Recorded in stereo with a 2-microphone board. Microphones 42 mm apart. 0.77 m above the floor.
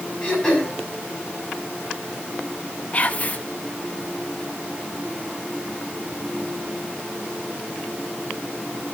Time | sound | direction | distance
0.2 | throat clearing | 15° left (ahead or behind) | 5.5 m
2.9 | whispering | 35° left (ahead or behind) | 0.8 m